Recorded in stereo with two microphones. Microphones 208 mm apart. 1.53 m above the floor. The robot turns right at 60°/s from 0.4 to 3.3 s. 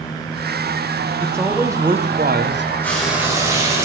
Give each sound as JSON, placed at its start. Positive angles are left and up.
{"t": 1.2, "sound": "a man speaking", "azimuth_deg": 165, "distance_m": 0.7}
{"t": 2.8, "sound": "frying", "side_deg": 10, "distance_m": 2.0}